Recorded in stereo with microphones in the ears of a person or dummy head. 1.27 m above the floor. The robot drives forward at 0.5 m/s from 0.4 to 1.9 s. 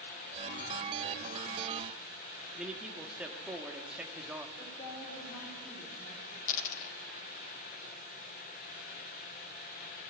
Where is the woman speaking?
30° left (ahead or behind), 4.5 m.